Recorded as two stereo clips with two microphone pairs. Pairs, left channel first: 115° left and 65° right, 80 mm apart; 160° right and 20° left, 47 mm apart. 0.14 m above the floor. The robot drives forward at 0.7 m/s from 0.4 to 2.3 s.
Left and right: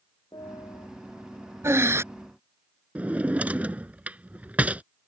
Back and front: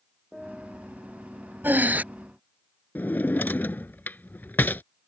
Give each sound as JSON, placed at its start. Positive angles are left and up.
{"t": 0.3, "sound": "a piano", "azimuth_deg": 110}
{"t": 1.6, "sound": "breathing", "azimuth_deg": -20}
{"t": 3.0, "sound": "a drawer", "azimuth_deg": -135}